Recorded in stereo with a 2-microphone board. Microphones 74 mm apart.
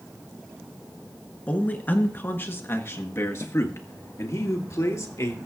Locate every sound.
1.5 s a man speaking: 20° left (ahead or behind), 1.6 m; by 5.5 s 50° left (ahead or behind), 2.5 m